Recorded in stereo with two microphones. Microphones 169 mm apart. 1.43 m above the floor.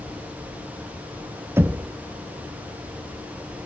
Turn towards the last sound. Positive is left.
turn(degrees=-15)  # may be behind; listen again after turning